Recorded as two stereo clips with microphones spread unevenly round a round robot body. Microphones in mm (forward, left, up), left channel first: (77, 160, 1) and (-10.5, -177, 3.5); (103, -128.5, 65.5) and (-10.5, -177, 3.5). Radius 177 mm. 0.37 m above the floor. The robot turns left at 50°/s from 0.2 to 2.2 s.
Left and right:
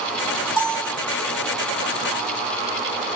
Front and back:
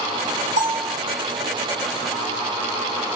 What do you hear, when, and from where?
0.6 s a bell: 90° left, 1.4 m; by 1.0 s 70° left, 1.4 m